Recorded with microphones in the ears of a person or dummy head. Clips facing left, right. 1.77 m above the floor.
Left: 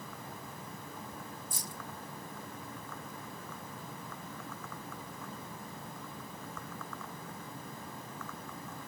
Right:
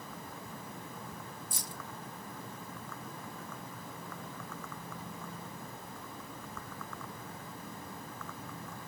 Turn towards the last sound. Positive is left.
turn(degrees=-60)  # may be behind; listen again after turning